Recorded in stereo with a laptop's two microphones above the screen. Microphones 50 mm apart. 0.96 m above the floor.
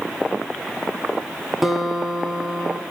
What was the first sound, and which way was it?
A guitar, 5° right (ahead or behind).